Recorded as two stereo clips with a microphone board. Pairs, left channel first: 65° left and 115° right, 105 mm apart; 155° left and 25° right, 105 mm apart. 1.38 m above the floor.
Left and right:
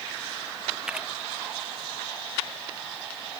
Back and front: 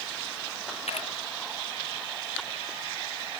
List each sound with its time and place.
0.9 s a camera shutter: 165° left